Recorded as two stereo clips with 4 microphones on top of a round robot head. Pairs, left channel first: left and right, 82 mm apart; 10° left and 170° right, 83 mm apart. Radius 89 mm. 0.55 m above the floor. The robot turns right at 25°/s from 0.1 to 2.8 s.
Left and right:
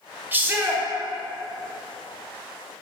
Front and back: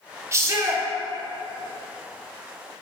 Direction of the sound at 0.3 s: 140° right.